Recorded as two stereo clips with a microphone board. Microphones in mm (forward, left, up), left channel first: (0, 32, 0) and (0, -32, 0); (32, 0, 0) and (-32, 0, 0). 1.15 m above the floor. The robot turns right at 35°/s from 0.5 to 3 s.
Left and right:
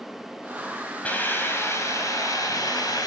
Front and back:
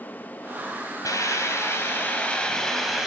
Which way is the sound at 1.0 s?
25° left.